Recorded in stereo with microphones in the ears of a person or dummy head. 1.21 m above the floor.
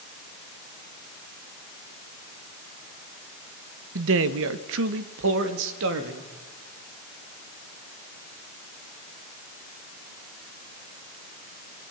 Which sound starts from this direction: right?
A man speaking, at 4.0 s.